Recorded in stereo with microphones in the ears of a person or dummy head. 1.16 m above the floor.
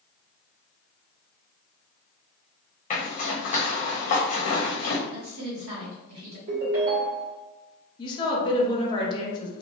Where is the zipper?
40° left (ahead or behind), 0.8 m.